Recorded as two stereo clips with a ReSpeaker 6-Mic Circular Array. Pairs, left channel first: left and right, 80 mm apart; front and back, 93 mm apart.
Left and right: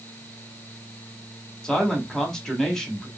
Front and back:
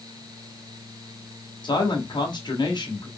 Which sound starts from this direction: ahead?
A man speaking, at 1.6 s.